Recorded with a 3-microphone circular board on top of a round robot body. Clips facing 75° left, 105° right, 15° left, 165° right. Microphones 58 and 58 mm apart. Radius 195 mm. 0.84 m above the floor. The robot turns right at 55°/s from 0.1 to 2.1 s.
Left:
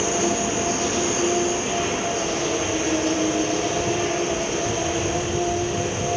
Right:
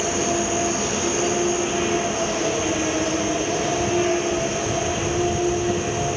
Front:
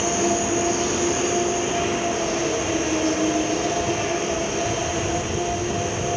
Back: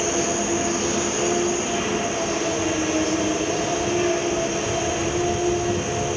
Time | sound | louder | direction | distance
0.0 | an insect | even, front 1 dB | 150° left | 2 m